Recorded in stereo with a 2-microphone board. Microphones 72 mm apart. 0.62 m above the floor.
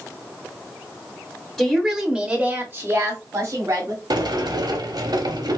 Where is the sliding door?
75° right (ahead or behind), 0.9 m.